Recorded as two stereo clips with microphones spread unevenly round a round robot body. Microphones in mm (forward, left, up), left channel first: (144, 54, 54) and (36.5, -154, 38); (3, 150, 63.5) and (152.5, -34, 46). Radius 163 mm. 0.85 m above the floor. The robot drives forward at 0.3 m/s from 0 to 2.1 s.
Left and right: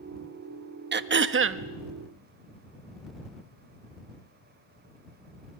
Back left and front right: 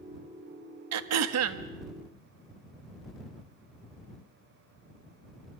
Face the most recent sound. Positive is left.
turn(degrees=-90)